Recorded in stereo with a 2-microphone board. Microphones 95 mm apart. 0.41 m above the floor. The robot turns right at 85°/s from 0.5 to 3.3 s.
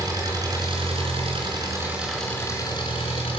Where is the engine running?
140° right, 3 m; by 3.4 s 100° left, 3 m.